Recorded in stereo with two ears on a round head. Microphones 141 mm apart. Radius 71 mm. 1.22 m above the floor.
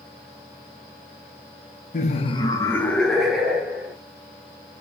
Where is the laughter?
50° left (ahead or behind), 0.8 m; by 3.9 s 10° right (ahead or behind), 1.7 m.